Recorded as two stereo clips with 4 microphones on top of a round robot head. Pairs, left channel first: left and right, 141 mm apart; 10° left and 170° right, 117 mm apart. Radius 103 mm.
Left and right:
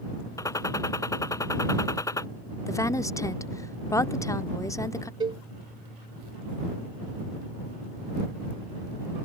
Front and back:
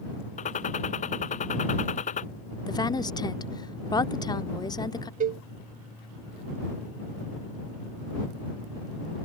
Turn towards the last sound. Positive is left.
turn(degrees=-155)